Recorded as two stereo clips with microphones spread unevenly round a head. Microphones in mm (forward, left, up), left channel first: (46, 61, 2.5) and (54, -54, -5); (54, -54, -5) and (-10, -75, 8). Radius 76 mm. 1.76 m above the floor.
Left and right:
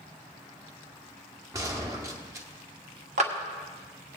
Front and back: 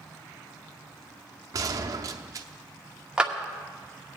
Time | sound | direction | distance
1.5 | a gunshot | 155° right | 0.6 m
3.2 | a clap | 95° right | 1.1 m